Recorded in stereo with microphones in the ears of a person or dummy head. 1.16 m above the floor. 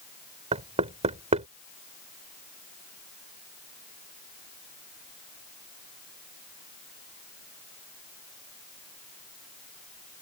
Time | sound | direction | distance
0.5 | knocking | 35° right (ahead or behind) | ?